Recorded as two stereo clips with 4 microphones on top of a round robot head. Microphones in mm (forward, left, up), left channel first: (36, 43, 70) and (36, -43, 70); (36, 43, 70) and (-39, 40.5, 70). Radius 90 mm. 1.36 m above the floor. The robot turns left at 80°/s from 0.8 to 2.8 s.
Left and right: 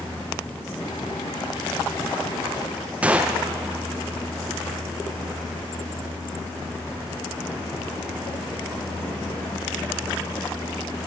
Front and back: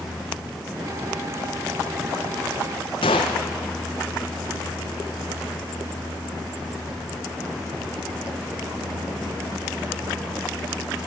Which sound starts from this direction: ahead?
A gunshot, at 3.0 s.